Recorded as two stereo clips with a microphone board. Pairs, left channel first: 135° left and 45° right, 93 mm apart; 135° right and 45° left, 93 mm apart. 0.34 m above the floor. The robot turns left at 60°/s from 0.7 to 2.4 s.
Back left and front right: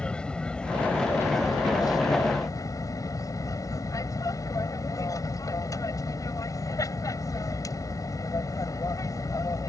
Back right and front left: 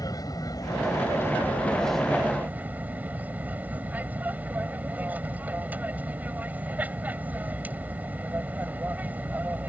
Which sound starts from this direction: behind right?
An aircraft, at 0.0 s.